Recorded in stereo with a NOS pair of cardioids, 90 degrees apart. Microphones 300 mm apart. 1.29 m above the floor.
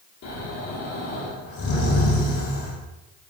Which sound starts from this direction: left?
Snoring, at 0.2 s.